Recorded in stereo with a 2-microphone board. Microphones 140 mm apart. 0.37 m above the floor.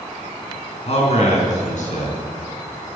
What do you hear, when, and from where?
0.9 s a man speaking: 50° left (ahead or behind), 4 m; by 2.2 s 75° left (ahead or behind), 4.5 m